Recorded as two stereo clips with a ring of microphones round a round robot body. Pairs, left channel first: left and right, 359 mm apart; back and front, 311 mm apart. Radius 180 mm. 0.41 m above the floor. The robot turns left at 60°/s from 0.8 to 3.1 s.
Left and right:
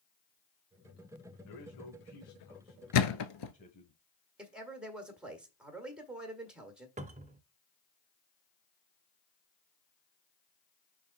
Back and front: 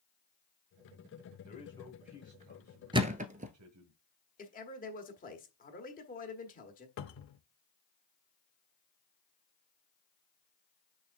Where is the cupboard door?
155° right, 0.5 m.